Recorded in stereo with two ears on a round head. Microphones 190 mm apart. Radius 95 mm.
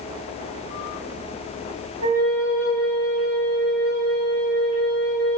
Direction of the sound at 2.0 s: 65° right (ahead or behind).